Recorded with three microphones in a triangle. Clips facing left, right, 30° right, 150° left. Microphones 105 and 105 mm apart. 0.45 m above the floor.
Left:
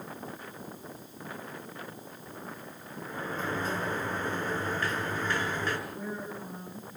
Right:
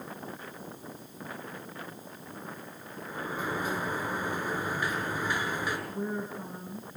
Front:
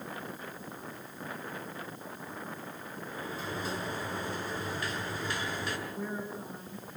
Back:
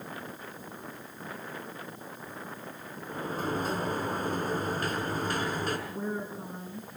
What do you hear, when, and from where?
3.1 s a sliding door: 170° right, 7.5 m
5.9 s a woman speaking: 145° right, 7 m